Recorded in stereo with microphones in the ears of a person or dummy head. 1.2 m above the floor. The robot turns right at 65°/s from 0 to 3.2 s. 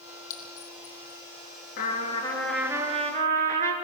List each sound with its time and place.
0.3 s a clink: 65° left (ahead or behind), 1.9 m; by 1.2 s 10° left (ahead or behind), 1.9 m
1.8 s a trumpet: 130° left, 3 m; by 3.7 s 135° right, 3 m